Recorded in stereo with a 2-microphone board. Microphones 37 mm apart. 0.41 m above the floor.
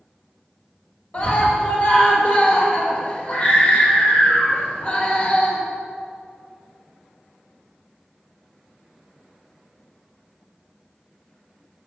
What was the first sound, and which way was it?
A scream, 35° left (ahead or behind).